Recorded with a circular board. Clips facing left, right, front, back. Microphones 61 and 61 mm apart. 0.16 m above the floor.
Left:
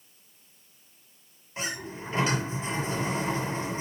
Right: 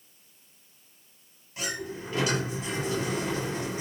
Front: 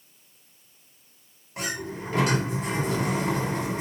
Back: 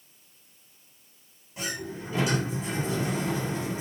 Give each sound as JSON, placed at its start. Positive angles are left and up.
{"t": 1.6, "sound": "a sliding door", "azimuth_deg": 30, "distance_m": 8.0}